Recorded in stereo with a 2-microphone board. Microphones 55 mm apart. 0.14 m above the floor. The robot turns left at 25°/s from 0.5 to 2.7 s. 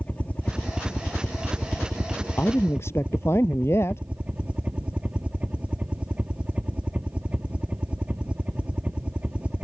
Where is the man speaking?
50° left (ahead or behind); by 4.0 s 55° left (ahead or behind).